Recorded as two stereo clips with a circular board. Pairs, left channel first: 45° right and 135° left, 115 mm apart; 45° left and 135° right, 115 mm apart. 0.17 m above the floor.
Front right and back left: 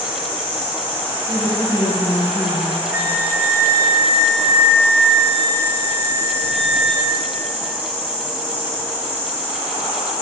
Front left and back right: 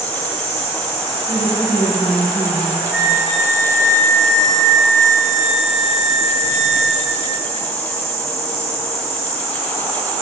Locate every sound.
0.0 s an insect: 65° left, 2.5 m
1.3 s a woman speaking: 30° right, 2.0 m
2.9 s a flute: 135° left, 0.9 m